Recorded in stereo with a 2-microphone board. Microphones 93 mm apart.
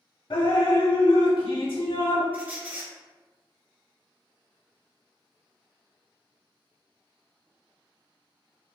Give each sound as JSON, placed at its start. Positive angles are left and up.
{"t": 0.3, "sound": "dripping", "side_deg": 60, "distance_m": 0.7}
{"t": 2.3, "sound": "a squeak", "side_deg": -15, "distance_m": 0.8}